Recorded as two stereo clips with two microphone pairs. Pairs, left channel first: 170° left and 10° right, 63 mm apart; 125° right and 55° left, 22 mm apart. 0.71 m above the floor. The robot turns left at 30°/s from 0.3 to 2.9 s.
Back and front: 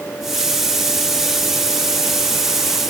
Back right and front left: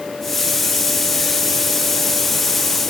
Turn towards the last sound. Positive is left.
No sound to turn to.